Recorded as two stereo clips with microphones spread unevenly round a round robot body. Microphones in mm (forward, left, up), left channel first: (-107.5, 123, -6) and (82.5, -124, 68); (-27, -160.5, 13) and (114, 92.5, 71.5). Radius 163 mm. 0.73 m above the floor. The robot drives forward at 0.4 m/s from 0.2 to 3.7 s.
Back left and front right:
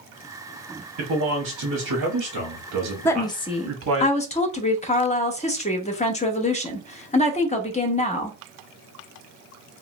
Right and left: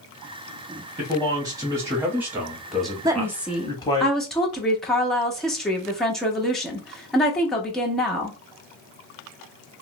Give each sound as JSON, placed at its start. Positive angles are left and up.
{"t": 1.0, "sound": "a man speaking", "azimuth_deg": -20, "distance_m": 1.4}
{"t": 3.0, "sound": "a woman speaking", "azimuth_deg": 150, "distance_m": 0.5}